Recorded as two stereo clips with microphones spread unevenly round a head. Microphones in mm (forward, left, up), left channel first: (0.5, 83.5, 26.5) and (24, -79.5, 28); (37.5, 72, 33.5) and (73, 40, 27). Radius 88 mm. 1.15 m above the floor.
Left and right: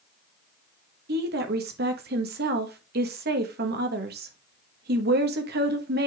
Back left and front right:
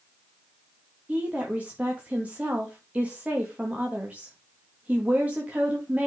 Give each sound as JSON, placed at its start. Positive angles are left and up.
{"t": 1.1, "sound": "a woman speaking", "azimuth_deg": -110, "distance_m": 1.7}